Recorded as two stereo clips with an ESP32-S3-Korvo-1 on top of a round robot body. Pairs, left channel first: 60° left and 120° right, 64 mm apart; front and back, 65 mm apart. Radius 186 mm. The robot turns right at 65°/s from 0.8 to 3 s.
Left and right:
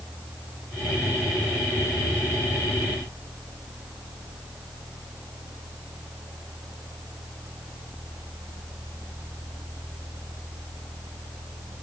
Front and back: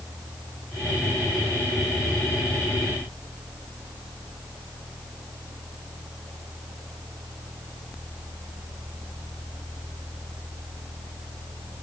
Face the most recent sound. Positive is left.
No sound to turn to.